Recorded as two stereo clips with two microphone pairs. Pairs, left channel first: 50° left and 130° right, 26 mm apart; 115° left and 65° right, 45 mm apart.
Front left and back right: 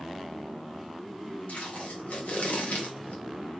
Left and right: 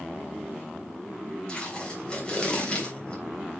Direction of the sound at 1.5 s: 45° left.